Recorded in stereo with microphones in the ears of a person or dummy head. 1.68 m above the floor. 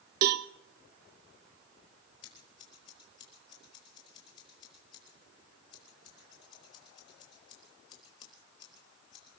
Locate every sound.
0.2 s a cowbell: 50° right (ahead or behind), 0.6 m
2.2 s scissors: 30° left (ahead or behind), 4 m